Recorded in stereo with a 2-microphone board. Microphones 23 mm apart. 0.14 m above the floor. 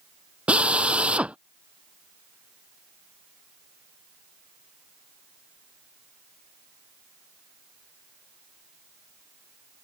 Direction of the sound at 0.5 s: 65° right (ahead or behind).